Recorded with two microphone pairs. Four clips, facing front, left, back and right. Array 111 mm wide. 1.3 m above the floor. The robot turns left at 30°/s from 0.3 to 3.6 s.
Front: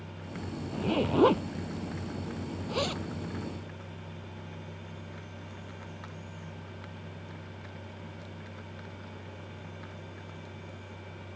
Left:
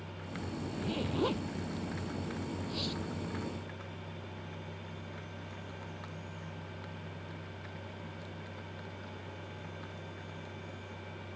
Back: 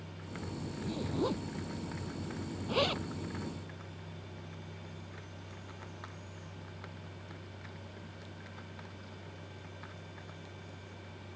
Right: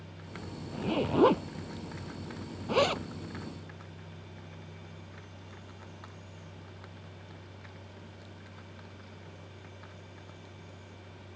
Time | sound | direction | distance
0.7 | a zipper | 25° right | ?